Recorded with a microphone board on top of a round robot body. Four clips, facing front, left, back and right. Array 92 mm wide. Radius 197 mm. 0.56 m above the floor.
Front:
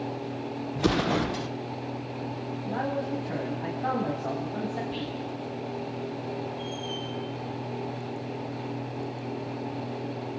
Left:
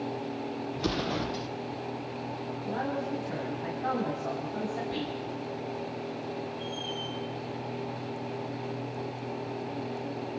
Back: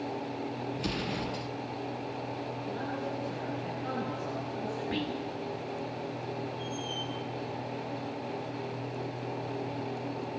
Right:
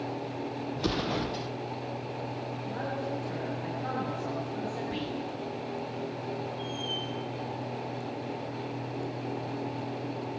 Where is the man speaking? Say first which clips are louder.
Left 3 dB, front 8 dB; 25° left, 5 m.